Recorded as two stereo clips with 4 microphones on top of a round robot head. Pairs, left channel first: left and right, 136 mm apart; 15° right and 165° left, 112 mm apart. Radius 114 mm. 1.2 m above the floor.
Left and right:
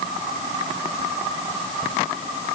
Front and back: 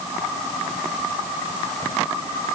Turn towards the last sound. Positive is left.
No sound to turn to.